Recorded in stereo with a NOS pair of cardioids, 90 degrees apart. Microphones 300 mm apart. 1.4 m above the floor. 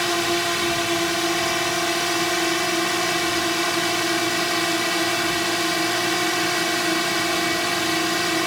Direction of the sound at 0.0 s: Straight ahead.